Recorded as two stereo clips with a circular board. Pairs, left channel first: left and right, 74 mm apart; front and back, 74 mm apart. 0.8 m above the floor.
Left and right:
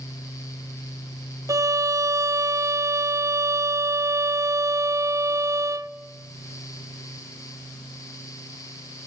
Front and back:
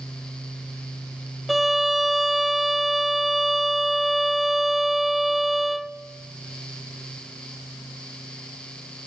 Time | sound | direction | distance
1.5 | a violin | 95° right | 0.5 m